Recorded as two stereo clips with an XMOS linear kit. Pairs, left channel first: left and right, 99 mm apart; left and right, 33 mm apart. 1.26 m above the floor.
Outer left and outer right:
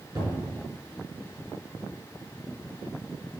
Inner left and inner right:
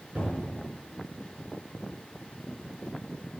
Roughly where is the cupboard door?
Right.